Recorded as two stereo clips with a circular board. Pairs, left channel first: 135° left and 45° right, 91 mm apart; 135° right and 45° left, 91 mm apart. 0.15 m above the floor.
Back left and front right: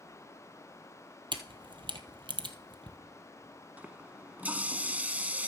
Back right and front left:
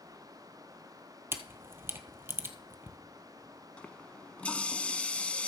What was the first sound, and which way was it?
A camera shutter, 20° right.